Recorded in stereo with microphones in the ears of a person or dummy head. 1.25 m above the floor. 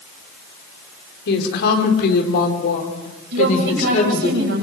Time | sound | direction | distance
1.3 | a woman speaking | 70° left (ahead or behind) | 4.5 m
3.3 | a woman speaking | 60° right (ahead or behind) | 8 m